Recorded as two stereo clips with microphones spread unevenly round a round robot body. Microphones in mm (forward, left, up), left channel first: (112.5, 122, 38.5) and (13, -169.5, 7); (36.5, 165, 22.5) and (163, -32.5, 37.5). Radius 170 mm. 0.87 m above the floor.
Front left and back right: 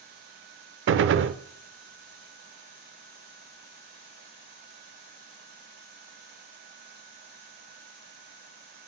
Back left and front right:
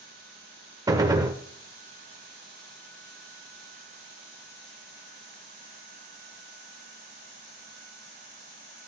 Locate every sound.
0.9 s a gunshot: 115° right, 0.5 m